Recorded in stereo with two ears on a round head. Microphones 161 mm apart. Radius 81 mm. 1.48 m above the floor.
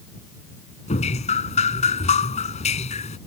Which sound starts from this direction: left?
Dripping, at 0.9 s.